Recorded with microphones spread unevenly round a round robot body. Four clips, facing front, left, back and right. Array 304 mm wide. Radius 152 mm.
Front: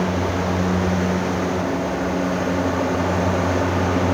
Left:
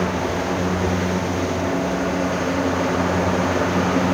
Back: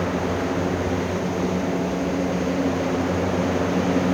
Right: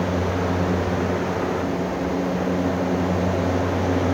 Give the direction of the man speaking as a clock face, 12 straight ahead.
I don't hear a man speaking.